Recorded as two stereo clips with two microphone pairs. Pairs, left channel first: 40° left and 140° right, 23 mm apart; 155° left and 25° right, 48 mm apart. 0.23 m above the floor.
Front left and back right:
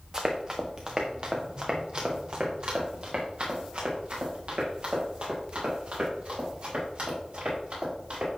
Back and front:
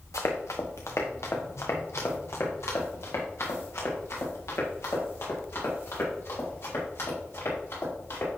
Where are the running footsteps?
155° left, 1.3 m; by 8.3 s 170° right, 6.5 m.